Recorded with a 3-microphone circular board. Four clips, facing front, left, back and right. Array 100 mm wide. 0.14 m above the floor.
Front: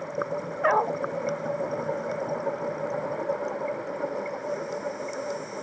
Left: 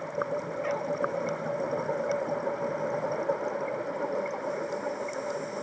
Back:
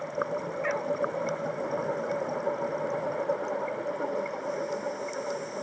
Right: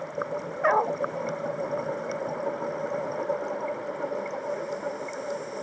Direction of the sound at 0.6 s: 45° right.